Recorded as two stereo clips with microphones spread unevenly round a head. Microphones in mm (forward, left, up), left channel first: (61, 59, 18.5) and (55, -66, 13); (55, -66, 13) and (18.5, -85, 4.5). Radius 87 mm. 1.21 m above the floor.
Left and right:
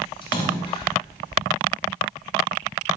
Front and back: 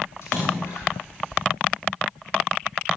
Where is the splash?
40° left, 8.5 m.